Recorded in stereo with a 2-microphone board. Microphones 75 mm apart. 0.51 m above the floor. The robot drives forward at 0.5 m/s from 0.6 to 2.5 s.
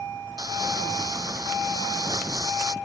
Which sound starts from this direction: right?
Crumpling, at 0.4 s.